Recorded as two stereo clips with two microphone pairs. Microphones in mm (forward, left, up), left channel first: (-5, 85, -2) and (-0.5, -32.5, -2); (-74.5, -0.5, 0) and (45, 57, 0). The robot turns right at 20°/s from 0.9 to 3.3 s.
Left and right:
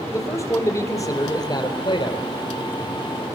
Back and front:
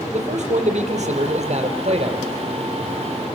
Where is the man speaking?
35° left, 3 m; by 2.3 s 60° left, 3 m.